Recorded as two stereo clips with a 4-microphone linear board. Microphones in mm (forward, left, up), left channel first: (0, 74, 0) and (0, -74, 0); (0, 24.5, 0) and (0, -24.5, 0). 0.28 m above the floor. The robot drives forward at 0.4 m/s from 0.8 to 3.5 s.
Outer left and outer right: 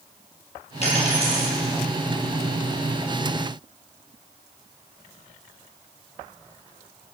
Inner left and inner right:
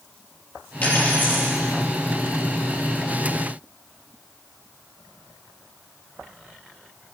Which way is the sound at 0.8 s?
45° left (ahead or behind).